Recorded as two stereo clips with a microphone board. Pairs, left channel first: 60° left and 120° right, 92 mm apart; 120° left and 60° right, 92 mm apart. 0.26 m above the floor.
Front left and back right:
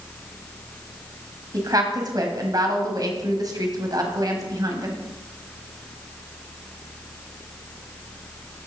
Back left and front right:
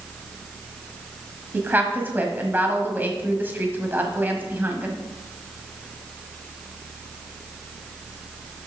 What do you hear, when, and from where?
1.5 s a woman speaking: 115° right, 1.5 m